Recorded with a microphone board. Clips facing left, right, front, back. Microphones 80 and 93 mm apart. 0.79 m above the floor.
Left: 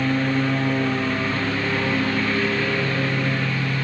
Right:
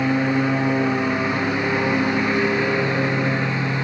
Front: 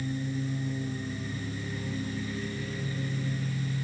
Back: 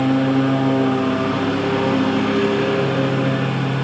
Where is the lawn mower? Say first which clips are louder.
Right 2 dB, back 17 dB; 165° right; by 3.9 s 160° right.